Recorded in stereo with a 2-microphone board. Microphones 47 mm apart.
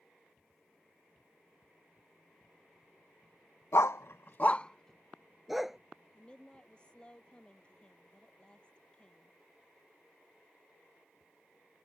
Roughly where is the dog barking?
Left.